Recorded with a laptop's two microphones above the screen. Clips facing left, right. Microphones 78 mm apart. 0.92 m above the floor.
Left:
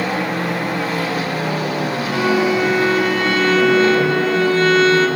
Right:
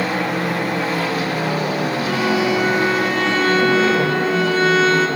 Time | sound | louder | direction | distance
2.0 | a violin | left 3 dB | 5° right (ahead or behind) | 9.5 m